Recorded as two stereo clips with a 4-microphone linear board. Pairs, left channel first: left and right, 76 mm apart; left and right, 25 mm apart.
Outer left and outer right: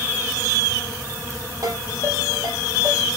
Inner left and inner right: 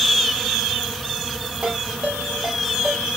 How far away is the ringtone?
About 3.5 m.